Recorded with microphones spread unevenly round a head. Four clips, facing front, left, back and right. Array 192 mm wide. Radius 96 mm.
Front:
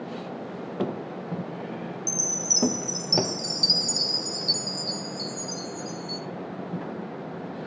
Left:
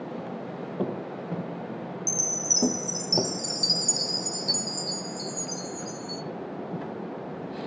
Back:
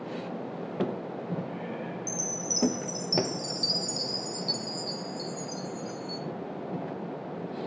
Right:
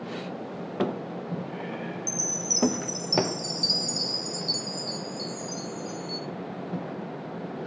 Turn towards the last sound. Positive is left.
turn(degrees=45)